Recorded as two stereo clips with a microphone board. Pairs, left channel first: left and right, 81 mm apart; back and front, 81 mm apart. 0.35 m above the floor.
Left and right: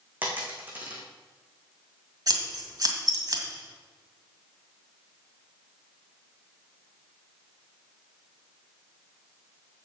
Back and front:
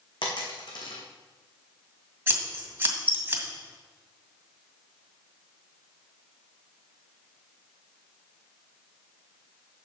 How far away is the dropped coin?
About 2.5 m.